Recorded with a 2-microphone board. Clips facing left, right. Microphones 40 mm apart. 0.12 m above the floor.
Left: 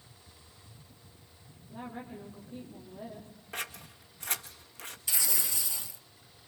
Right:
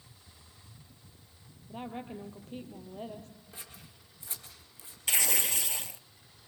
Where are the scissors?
60° left (ahead or behind), 1.6 m.